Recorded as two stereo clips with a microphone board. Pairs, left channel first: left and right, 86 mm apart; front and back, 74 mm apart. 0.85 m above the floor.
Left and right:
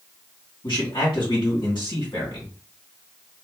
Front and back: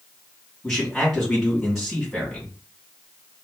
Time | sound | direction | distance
0.6 | a man speaking | 80° left | 2 m